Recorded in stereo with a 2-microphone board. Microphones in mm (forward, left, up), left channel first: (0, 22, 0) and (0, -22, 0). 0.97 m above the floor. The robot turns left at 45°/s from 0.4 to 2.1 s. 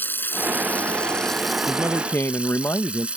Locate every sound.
0.0 s running water: 50° left; by 3.2 s 25° right
1.7 s a man speaking: 45° left (ahead or behind); by 3.1 s 55° left (ahead or behind)